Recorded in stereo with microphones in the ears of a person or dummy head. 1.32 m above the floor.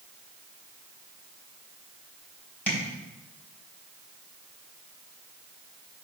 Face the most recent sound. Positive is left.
turn(degrees=5)  # may be behind; listen again after turning